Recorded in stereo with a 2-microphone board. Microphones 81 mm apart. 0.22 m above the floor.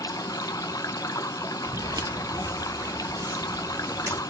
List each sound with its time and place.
0.0 s running water: 55° left (ahead or behind), 0.7 m
1.7 s footsteps: 60° right (ahead or behind), 0.8 m; by 4.2 s 35° right (ahead or behind), 2.5 m